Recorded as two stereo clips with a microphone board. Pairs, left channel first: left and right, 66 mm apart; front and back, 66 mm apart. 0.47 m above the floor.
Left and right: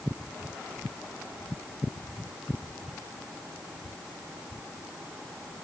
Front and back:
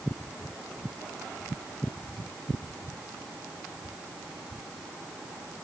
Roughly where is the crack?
I don't hear a crack.